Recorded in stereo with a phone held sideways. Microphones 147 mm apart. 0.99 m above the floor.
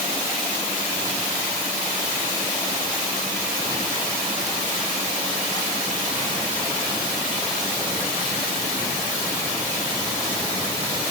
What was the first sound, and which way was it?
Only background noise.